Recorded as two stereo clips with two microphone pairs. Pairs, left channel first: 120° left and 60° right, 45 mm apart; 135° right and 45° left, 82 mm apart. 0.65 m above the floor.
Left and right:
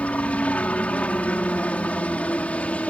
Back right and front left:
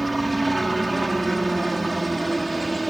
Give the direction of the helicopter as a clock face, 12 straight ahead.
8 o'clock.